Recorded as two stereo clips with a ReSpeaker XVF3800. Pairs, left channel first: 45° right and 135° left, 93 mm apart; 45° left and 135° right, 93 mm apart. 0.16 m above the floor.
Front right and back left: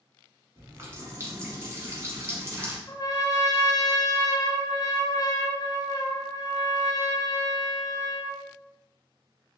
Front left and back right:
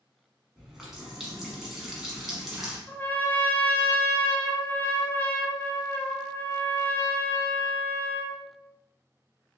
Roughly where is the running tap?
Behind left.